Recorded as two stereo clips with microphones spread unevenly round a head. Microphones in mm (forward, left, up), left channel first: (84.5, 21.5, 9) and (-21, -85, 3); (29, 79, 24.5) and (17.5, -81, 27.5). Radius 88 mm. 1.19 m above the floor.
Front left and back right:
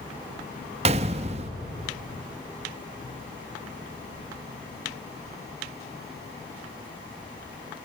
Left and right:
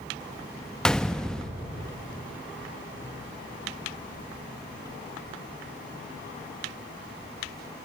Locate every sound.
0.8 s a gunshot: 170° left, 0.7 m